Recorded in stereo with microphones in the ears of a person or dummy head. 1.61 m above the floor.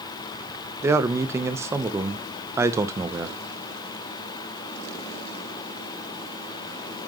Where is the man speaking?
15° right (ahead or behind), 0.9 m.